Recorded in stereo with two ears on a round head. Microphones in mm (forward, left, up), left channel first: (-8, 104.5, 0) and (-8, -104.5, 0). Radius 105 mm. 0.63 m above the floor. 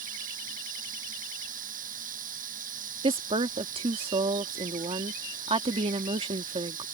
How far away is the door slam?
I don't hear a door slam.